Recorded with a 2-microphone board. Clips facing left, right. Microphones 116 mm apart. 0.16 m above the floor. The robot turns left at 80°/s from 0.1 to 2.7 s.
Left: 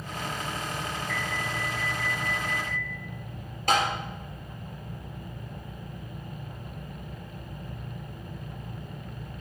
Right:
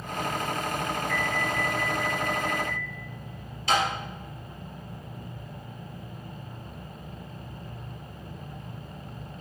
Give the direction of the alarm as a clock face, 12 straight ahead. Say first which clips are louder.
Right 4 dB; 6 o'clock.